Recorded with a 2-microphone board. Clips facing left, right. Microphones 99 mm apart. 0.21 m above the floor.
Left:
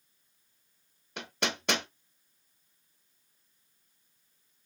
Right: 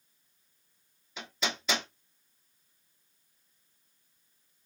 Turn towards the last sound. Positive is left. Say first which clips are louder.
# left 2 dB
turn(degrees=65)  # may be behind; listen again after turning